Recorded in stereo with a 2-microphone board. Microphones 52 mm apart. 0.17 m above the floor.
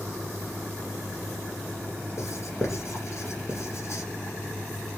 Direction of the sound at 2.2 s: 55° left (ahead or behind).